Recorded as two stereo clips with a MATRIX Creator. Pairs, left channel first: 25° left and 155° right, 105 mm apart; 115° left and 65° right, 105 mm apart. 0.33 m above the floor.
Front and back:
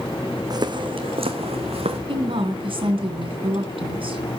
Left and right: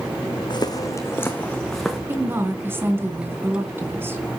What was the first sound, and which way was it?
Footsteps, 155° left.